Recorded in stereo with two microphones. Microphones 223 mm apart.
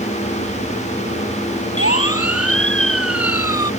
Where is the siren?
85° left.